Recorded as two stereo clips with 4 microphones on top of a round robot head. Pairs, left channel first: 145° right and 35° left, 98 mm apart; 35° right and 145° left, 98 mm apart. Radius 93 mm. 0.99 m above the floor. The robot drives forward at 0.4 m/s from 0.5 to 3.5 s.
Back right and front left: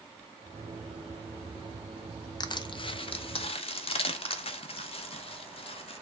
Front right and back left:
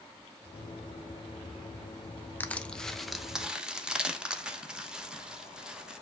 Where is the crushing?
105° right, 0.8 m; by 6.0 s 135° right, 1.0 m.